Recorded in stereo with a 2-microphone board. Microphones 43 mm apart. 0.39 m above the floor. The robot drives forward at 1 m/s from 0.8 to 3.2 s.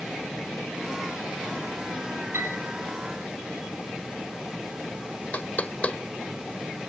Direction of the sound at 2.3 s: 85° right.